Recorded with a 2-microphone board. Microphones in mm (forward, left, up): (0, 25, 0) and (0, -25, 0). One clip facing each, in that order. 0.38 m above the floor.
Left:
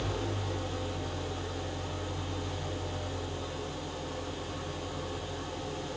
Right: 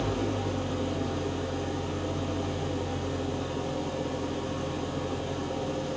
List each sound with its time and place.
0.0 s an engine running: 85° right, 3.5 m